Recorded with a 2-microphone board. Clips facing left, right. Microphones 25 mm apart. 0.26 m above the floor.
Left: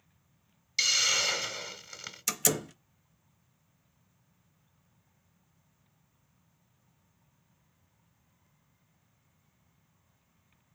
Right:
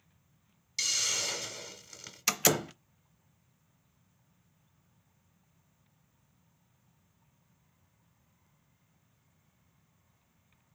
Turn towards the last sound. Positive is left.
turn(degrees=-30)  # may be behind; listen again after turning